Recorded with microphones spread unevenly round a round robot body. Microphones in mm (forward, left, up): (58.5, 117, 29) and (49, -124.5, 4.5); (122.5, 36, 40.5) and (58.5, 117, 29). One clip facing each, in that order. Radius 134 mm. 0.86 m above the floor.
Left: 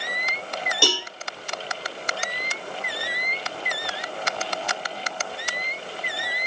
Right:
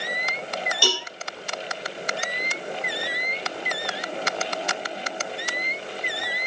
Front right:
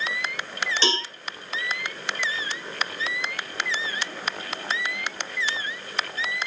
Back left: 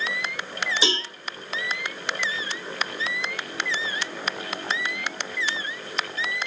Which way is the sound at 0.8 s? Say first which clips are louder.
Left 2 dB, front right 2 dB; 50° left.